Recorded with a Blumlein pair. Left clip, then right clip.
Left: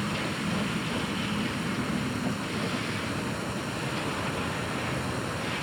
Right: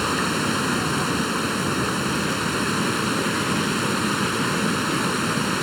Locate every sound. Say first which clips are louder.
0.0 s running water: right 9 dB; 35° right